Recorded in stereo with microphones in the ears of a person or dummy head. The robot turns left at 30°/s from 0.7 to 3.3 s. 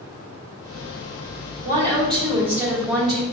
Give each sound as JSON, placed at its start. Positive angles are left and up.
{"t": 1.6, "sound": "a woman speaking", "azimuth_deg": -140, "distance_m": 1.2}